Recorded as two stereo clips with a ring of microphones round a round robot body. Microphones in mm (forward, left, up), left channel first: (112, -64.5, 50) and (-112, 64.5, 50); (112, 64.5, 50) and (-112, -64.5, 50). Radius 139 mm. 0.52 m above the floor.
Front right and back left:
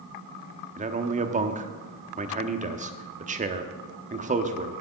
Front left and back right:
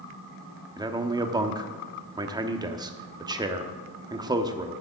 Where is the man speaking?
155° left, 1.0 m.